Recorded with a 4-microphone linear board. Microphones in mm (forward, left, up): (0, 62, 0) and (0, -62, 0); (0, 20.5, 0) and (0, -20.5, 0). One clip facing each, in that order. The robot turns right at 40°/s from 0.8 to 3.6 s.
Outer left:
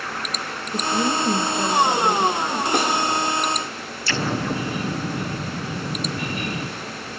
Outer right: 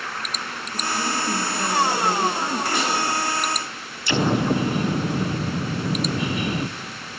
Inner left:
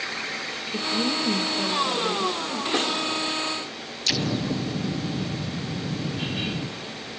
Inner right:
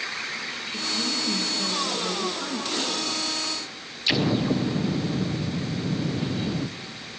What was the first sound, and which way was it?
A woman speaking, 125° left.